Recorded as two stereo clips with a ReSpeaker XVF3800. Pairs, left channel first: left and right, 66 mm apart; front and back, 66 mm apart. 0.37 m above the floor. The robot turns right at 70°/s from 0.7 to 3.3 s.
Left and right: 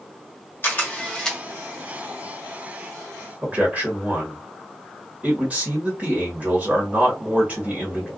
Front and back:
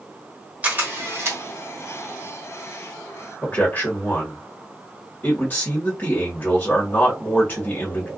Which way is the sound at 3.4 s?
40° right.